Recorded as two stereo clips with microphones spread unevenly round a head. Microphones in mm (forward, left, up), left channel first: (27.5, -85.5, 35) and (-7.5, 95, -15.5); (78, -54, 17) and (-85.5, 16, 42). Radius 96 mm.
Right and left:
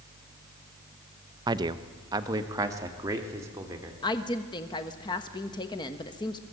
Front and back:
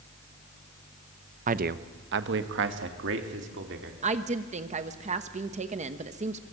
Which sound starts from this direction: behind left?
A man speaking, at 1.5 s.